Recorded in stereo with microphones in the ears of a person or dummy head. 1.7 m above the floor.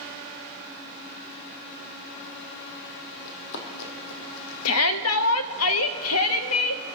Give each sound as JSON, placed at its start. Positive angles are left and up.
{"t": 3.2, "sound": "running footsteps", "side_deg": 60, "distance_m": 3.5}
{"t": 4.7, "sound": "a shout", "side_deg": 90, "distance_m": 0.9}